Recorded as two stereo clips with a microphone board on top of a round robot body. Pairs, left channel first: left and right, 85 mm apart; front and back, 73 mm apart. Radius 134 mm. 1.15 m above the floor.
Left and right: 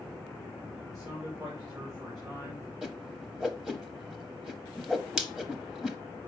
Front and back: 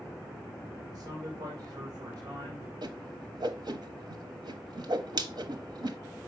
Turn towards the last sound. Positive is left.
turn(degrees=-175)